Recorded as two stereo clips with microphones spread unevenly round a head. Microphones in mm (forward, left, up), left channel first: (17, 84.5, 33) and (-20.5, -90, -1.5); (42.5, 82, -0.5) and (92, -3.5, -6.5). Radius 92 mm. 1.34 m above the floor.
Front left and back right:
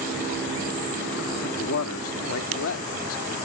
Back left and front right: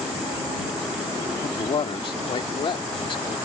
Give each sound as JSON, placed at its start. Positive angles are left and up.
{"t": 1.4, "sound": "a man speaking", "azimuth_deg": 90}